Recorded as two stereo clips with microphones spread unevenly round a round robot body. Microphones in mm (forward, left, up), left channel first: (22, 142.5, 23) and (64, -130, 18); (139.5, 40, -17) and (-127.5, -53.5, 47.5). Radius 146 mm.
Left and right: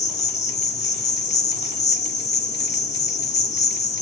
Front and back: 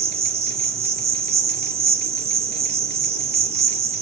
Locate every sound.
0.0 s an insect: 125° left, 0.9 m